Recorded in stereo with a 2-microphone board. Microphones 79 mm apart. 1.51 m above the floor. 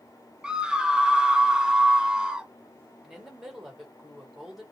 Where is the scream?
10° right (ahead or behind), 0.8 m.